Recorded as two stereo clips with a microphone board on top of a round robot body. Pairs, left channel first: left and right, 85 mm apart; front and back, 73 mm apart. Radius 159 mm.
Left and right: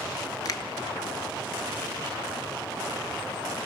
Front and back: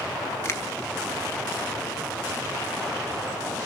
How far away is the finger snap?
About 1.4 m.